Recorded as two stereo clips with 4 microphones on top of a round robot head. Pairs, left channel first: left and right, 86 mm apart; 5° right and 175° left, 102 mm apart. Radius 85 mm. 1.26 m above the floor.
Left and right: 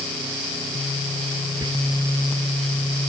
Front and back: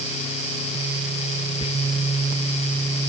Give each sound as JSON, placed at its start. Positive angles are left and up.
{"t": 1.6, "sound": "whispering", "azimuth_deg": -40, "distance_m": 2.0}